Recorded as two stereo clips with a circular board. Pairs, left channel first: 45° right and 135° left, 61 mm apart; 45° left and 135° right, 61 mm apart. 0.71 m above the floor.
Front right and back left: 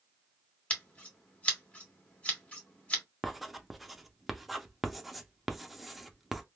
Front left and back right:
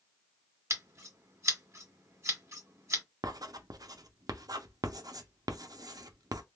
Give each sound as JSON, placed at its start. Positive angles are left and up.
{"t": 0.7, "sound": "scissors", "azimuth_deg": -110, "distance_m": 1.5}
{"t": 3.2, "sound": "writing", "azimuth_deg": -135, "distance_m": 0.5}